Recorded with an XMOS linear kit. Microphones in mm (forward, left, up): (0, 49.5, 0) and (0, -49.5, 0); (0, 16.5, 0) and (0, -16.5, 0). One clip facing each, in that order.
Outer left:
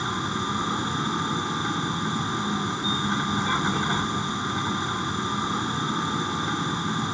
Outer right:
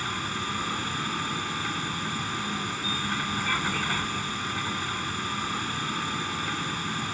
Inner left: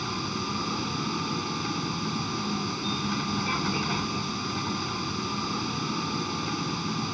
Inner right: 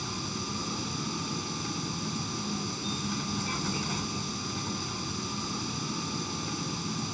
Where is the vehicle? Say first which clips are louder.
Outer left 4 dB, inner left 5 dB; 20° left (ahead or behind).